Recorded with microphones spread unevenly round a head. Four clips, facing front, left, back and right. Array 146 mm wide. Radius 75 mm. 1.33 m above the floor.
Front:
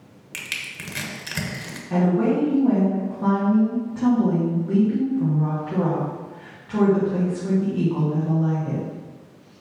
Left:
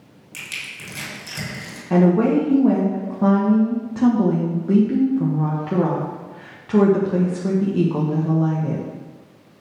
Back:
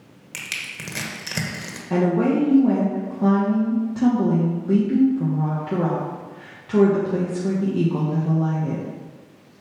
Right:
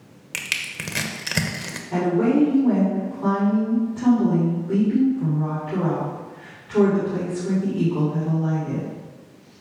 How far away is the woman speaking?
About 1.4 m.